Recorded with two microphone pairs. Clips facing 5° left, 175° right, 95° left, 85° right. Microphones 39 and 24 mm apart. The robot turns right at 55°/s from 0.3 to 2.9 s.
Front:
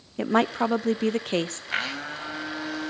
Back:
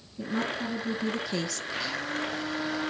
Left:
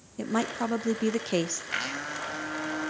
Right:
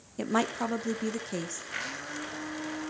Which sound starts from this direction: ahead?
A woman speaking, at 0.2 s.